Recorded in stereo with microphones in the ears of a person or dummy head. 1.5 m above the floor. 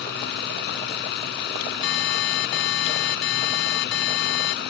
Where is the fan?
60° left (ahead or behind).